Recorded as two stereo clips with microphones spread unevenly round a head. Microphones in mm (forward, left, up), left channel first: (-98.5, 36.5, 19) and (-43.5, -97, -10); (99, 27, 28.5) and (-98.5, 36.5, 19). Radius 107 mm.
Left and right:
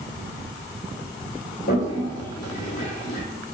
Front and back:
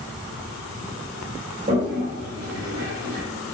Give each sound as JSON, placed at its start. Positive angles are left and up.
{"t": 1.7, "sound": "a toilet flushing", "azimuth_deg": 125, "distance_m": 1.6}